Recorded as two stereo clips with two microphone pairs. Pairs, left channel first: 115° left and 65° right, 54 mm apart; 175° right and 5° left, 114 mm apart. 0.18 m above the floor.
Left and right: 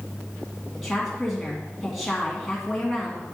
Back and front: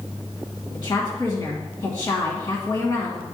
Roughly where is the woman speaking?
Behind.